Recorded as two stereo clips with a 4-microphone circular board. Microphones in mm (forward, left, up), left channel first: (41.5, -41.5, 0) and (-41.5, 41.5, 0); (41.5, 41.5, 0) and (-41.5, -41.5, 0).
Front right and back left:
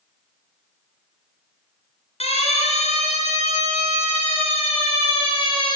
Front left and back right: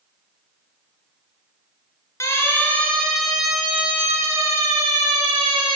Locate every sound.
2.2 s a siren: 20° right, 3 m; by 5.8 s 90° right, 4 m